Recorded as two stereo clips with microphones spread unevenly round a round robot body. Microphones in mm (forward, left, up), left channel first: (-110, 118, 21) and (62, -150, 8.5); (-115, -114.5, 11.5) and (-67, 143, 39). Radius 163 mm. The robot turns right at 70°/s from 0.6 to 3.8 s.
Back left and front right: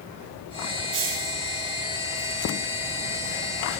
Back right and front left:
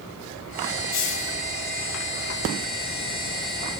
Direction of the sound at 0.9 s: 85° right.